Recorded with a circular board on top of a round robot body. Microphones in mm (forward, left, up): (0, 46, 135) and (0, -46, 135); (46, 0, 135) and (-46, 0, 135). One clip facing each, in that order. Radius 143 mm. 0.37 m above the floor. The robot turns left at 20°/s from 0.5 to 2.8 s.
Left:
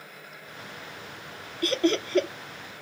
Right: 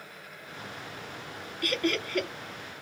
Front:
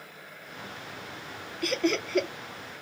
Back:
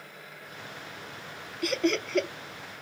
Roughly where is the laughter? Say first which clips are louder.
Left 5 dB, even; left.